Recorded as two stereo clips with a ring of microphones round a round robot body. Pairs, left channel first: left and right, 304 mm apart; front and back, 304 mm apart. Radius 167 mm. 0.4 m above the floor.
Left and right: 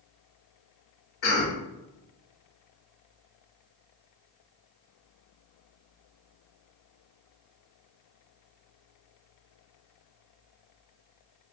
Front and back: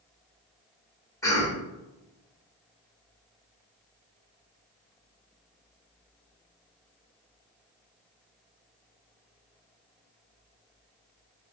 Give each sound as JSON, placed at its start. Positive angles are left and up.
{"t": 1.2, "sound": "a cough", "azimuth_deg": 75, "distance_m": 1.6}